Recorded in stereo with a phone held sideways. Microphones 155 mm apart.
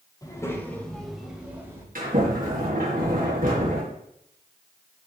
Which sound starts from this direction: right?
A sliding door, at 1.9 s.